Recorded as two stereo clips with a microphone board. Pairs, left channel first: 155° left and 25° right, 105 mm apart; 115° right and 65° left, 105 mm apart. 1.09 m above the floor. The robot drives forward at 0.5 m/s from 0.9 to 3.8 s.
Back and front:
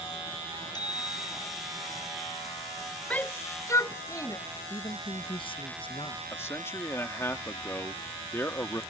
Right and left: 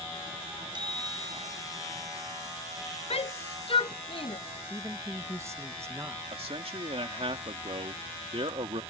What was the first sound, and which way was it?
A bicycle bell, 110° left.